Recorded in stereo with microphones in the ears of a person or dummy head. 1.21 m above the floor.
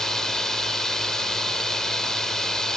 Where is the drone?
5° left (ahead or behind).